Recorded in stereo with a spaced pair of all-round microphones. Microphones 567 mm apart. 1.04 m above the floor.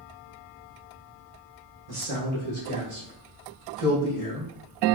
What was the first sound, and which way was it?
A man speaking, 70° right (ahead or behind).